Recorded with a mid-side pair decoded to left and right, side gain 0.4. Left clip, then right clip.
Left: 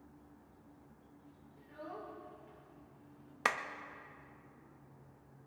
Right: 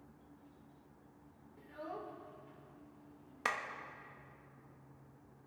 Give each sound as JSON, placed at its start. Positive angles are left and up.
{"t": 1.6, "sound": "a child speaking", "azimuth_deg": -25, "distance_m": 3.5}
{"t": 3.5, "sound": "a clap", "azimuth_deg": 35, "distance_m": 1.2}